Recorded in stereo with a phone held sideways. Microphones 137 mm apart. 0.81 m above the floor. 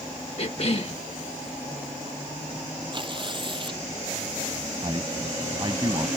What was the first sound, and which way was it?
A cough, 45° left (ahead or behind).